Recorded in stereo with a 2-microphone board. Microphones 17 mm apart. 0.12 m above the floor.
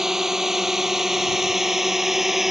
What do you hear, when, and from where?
0.0 s a drone: 30° right (ahead or behind); by 2.5 s 20° right (ahead or behind)